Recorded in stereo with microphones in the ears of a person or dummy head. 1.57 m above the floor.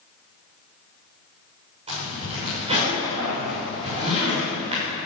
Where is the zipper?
35° right (ahead or behind), 6.5 m.